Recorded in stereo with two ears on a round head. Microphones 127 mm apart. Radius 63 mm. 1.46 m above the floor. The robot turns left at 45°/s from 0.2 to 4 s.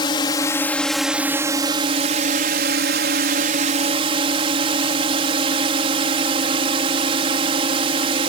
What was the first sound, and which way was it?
A drone, 35° left.